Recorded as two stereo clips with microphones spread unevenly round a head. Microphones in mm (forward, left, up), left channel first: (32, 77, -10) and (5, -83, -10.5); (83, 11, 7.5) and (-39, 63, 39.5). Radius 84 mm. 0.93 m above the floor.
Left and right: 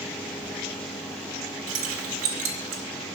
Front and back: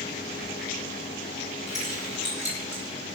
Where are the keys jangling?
115° right, 2 m.